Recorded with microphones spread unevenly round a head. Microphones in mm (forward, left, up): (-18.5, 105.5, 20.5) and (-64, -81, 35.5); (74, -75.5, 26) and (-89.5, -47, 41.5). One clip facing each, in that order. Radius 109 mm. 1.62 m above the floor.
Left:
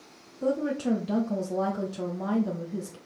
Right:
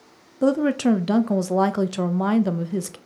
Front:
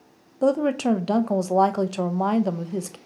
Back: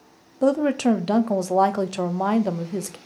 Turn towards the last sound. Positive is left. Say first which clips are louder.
# right 8 dB, back 1 dB
turn(degrees=-100)